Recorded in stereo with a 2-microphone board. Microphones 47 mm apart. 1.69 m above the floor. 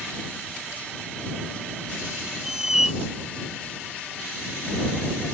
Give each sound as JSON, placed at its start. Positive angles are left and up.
{"t": 2.4, "sound": "a squeak", "side_deg": -10}